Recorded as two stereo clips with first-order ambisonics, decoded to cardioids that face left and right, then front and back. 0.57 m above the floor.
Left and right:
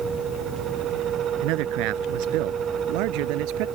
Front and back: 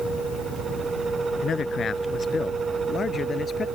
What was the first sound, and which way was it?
A man speaking, 65° right.